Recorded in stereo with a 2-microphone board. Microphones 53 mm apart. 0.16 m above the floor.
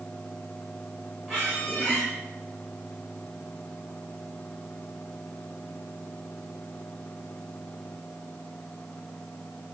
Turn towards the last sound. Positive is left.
turn(degrees=0)  # may be behind; listen again after turning